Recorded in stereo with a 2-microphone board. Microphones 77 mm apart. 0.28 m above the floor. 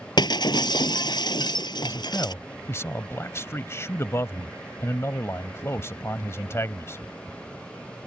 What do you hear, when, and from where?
0.2 s breaking glass: 70° left (ahead or behind)
1.8 s a man speaking: 35° left (ahead or behind)